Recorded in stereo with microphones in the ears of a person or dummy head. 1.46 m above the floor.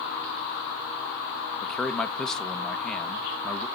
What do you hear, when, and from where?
1.6 s a man speaking: 5° left (ahead or behind), 0.7 m